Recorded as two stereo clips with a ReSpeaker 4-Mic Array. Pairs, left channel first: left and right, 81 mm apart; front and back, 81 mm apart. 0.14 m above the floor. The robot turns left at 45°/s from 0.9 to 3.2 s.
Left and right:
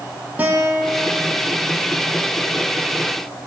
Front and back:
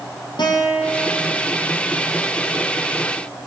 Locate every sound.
0.4 s a guitar: 20° right, 4 m; by 1.4 s 45° right, 4 m